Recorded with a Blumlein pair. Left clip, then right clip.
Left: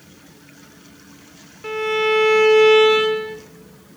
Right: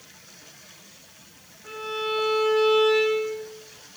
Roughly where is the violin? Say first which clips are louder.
Left 10 dB; ahead left.